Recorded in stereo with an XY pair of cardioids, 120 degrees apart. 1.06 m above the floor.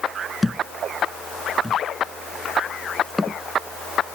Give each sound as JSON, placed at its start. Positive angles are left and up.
{"t": 0.4, "sound": "a thud", "azimuth_deg": 10}